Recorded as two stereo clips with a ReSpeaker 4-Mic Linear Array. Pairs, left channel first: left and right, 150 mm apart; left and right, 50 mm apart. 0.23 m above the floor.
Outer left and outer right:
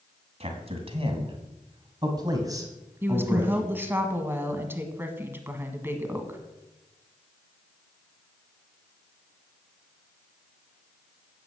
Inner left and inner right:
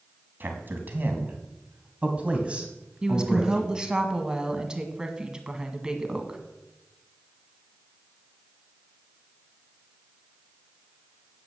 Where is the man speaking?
45° right (ahead or behind), 2.5 m; by 3.9 s 10° right (ahead or behind), 2 m.